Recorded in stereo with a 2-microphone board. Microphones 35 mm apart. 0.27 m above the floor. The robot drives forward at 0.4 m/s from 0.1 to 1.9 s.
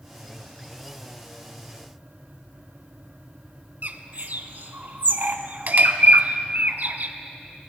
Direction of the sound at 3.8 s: 55° right (ahead or behind).